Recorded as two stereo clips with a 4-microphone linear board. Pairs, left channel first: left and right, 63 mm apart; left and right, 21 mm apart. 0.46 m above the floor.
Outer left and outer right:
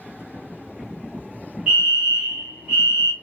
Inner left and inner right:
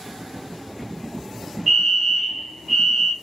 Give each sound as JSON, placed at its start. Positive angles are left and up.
{"t": 1.7, "sound": "a fire alarm", "side_deg": -10, "distance_m": 2.5}